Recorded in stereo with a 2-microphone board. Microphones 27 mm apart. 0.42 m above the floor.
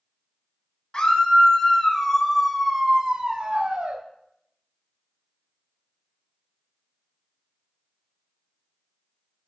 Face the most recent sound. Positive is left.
turn(degrees=-60)  # may be behind; listen again after turning